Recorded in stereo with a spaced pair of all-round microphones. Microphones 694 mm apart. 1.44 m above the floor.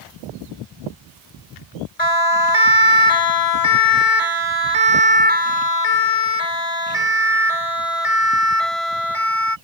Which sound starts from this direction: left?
A siren, at 2.0 s.